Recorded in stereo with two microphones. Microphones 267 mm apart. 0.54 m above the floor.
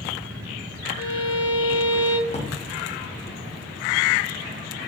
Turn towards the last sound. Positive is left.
turn(degrees=25)  # may be behind; listen again after turning